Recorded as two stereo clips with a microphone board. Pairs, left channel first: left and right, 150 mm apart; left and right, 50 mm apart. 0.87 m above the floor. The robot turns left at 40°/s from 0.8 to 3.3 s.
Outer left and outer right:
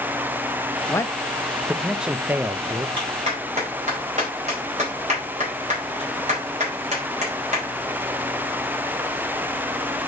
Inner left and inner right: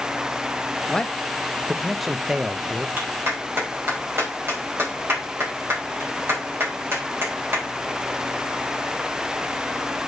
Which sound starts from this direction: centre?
A man speaking, at 0.9 s.